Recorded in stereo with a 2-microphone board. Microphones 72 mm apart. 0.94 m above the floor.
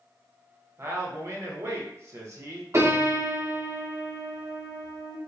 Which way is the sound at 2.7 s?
40° right (ahead or behind).